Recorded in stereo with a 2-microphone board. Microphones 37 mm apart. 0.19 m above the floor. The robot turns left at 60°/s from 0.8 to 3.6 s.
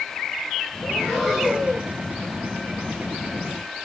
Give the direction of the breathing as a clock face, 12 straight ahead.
11 o'clock.